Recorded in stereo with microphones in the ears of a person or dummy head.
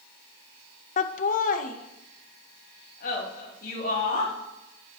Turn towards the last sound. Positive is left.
turn(degrees=55)  # may be behind; listen again after turning